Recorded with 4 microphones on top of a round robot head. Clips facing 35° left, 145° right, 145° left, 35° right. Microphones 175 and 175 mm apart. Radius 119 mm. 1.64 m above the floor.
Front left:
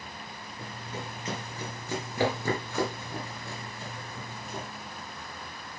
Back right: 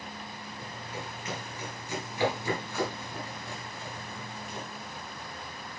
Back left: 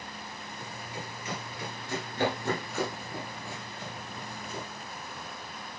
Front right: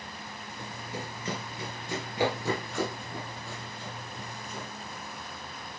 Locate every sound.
0.6 s running footsteps: 20° right, 1.8 m; by 4.6 s 85° left, 2.5 m